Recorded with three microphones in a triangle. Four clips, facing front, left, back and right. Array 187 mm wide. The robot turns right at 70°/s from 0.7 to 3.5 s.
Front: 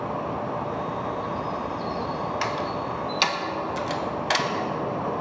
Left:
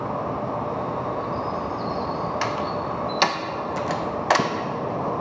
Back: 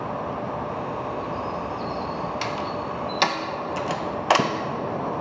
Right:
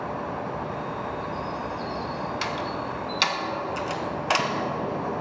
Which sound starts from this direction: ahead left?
A door slam, at 2.4 s.